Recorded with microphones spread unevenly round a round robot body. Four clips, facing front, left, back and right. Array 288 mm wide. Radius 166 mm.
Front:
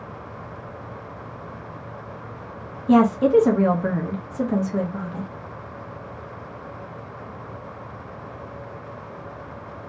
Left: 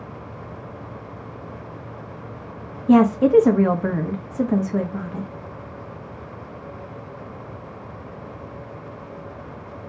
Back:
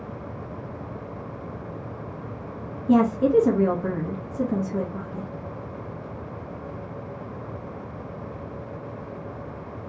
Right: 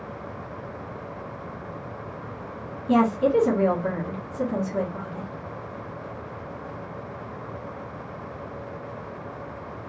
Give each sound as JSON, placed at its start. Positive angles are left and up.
{"t": 2.9, "sound": "a woman speaking", "azimuth_deg": 70, "distance_m": 1.2}